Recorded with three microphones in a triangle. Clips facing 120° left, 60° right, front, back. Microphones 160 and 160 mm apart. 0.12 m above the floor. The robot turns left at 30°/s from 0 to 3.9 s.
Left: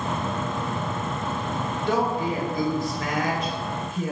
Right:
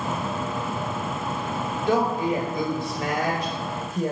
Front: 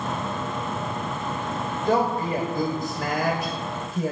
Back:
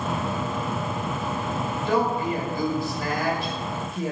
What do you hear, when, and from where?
1.9 s a woman speaking: 25° left, 2.5 m; by 4.1 s 35° right, 2.5 m